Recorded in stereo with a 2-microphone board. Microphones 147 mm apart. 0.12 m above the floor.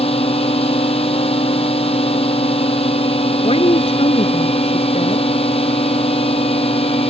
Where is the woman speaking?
45° left (ahead or behind).